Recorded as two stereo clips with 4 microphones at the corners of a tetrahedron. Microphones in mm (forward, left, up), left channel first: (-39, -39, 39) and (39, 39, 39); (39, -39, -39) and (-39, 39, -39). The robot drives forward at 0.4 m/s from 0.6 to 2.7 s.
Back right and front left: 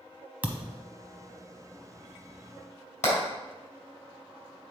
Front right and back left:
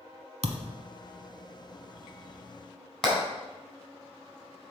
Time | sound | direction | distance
0.4 | a thud | 120° left | 0.9 m
3.0 | hammering | 130° right | 3.5 m